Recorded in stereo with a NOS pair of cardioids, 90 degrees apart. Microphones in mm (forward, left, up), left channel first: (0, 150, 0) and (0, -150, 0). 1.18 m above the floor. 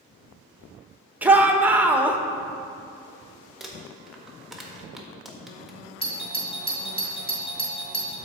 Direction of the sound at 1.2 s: 5° right.